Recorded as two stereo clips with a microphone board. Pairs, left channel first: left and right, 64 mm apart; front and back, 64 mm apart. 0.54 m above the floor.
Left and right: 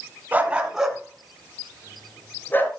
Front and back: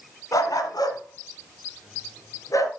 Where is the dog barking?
25° right, 1.6 m; by 2.7 s 35° left, 3 m.